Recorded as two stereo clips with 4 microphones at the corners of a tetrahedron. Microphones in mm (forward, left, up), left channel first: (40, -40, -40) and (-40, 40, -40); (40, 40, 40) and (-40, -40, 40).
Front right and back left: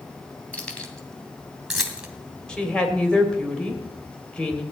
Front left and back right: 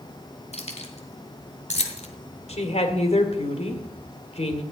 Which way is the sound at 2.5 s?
35° left.